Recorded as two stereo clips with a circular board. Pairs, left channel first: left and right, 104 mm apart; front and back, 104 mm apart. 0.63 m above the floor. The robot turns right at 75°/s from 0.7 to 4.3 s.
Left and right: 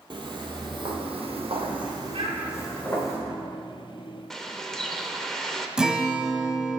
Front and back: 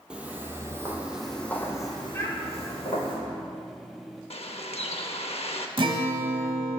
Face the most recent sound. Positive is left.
turn(degrees=-170)